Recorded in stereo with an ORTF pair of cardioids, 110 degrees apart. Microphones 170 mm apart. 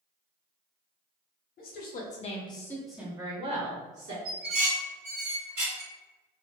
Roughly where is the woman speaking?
Ahead left.